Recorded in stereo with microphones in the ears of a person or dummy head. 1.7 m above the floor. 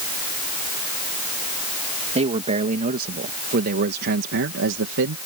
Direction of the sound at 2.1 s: 40° right (ahead or behind).